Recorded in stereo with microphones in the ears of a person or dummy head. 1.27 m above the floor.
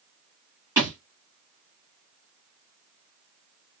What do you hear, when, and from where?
0.8 s a thud: 15° right (ahead or behind), 1.5 m